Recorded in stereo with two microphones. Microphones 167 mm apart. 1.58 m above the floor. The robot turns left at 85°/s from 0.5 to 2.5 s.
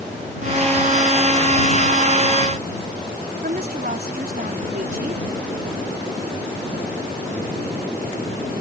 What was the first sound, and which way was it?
A woman speaking, 65° right (ahead or behind).